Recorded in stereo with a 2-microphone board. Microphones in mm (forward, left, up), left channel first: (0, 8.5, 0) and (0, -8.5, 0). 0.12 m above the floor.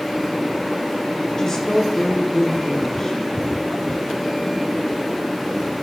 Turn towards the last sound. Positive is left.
turn(degrees=30)  # may be behind; listen again after turning